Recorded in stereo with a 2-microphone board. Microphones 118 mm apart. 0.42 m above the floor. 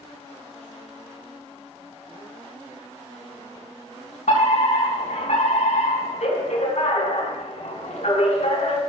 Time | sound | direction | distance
4.3 | a fire alarm | 70° left (ahead or behind) | 6 m